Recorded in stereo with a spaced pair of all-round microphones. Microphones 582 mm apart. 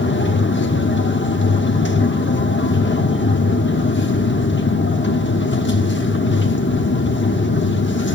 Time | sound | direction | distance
0.0 | a machine running | 20° left (ahead or behind) | 0.9 m